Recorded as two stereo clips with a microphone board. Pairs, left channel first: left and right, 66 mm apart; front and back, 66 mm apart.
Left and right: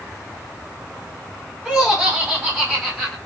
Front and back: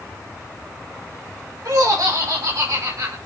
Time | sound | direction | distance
1.6 | laughter | 175° right | 3 m